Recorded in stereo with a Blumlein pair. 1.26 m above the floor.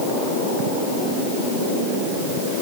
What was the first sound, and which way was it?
Only background noise.